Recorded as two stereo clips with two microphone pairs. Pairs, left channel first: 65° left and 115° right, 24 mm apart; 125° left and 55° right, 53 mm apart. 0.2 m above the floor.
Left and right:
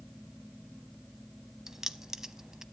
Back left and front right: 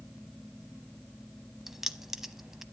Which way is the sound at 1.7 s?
130° right.